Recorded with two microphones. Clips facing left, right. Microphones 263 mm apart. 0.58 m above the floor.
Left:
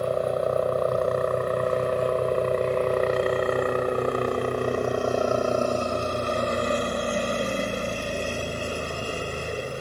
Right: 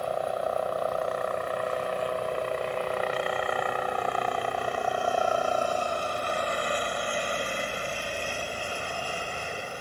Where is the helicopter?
50° left (ahead or behind); by 9.8 s 45° left (ahead or behind).